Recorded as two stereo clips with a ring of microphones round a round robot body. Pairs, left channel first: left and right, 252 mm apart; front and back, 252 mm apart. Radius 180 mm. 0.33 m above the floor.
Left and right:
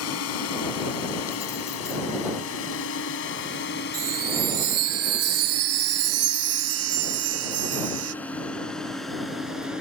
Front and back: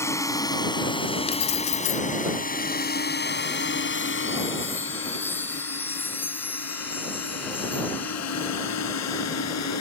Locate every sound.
0.0 s a drone: 80° left; by 9.8 s straight ahead
1.3 s keys jangling: 10° left
3.9 s a chime: 85° right